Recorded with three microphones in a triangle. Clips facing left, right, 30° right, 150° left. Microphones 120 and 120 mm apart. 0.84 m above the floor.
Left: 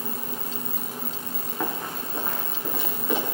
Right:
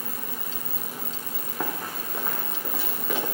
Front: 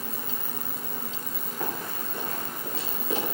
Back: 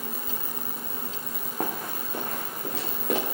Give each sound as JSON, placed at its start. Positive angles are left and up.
{"t": 1.6, "sound": "running footsteps", "azimuth_deg": -170, "distance_m": 2.5}